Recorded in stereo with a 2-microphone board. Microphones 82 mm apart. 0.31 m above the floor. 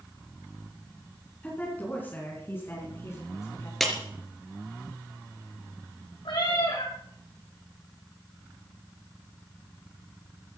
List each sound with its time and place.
1.4 s a woman speaking: 20° left (ahead or behind), 4.5 m; by 3.7 s 40° left (ahead or behind), 3.5 m
3.8 s a clap: 5° left (ahead or behind), 4 m
6.2 s a cat meowing: 75° left (ahead or behind), 6.5 m